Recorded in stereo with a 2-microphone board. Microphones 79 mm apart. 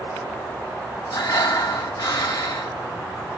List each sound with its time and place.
1.1 s breathing: 60° left (ahead or behind), 1.2 m